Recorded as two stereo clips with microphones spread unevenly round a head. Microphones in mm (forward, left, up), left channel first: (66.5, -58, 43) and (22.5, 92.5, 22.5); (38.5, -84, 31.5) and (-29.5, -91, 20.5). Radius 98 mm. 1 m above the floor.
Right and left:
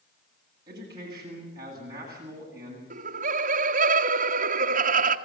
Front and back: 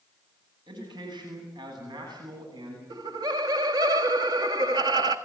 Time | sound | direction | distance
0.7 | a man speaking | 175° left | 10 m
2.9 | laughter | 150° left | 1.6 m